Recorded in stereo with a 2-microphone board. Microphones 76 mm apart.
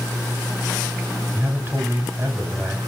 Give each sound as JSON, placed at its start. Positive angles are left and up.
{"t": 1.3, "sound": "a man speaking", "side_deg": -25, "distance_m": 6.5}